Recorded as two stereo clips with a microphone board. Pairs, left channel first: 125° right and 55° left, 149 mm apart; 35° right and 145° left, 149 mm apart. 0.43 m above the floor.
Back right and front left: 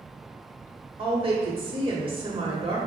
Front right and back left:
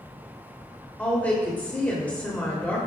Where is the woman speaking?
40° left, 1.1 m.